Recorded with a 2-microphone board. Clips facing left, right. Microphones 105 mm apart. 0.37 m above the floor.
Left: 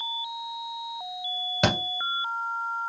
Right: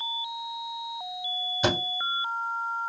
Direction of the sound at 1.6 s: 75° left (ahead or behind).